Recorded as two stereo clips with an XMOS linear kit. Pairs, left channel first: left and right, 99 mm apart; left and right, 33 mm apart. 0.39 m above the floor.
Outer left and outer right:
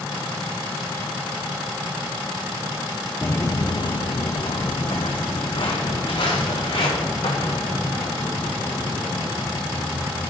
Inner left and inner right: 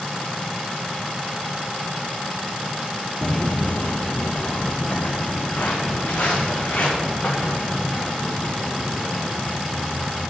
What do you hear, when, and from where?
3.2 s footsteps: 20° left (ahead or behind), 0.5 m; by 10.2 s 55° left (ahead or behind), 5 m